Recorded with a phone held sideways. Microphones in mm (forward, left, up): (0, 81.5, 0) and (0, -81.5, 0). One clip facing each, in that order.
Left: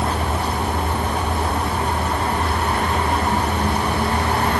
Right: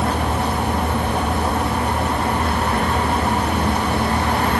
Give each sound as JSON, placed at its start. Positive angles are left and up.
{"t": 0.0, "sound": "a fan", "side_deg": -65, "distance_m": 1.8}